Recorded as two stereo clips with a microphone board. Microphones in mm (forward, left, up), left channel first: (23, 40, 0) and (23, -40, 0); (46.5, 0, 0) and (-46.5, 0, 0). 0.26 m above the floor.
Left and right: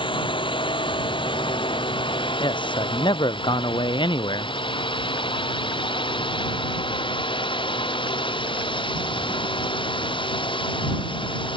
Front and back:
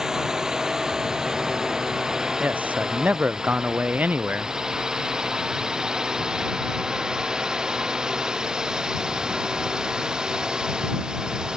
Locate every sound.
0.0 s a drone: 95° left
2.4 s a man speaking: 105° left